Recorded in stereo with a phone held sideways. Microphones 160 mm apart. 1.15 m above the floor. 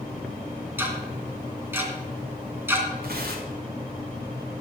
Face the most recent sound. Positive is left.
turn(degrees=-80)